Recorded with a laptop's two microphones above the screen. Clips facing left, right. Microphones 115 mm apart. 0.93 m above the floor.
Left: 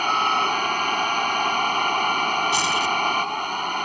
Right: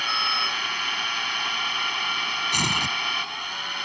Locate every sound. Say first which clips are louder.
0.0 s a machine running: left 8 dB; 50° left (ahead or behind)
2.5 s tearing paper: left 6 dB; 60° right (ahead or behind)